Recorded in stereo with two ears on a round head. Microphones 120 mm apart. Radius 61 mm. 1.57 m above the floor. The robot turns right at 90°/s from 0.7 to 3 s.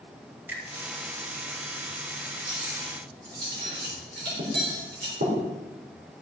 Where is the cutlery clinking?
35° right (ahead or behind), 4 m; by 5.4 s 80° right, 4 m.